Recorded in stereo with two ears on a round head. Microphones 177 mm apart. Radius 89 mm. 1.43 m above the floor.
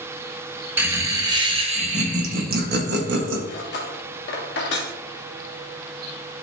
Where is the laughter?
10° right (ahead or behind), 1.6 m; by 3.4 s 65° right (ahead or behind), 1.7 m.